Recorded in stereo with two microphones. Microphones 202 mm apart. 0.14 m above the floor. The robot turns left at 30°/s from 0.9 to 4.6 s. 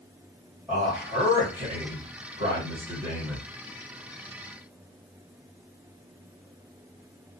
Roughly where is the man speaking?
Centre.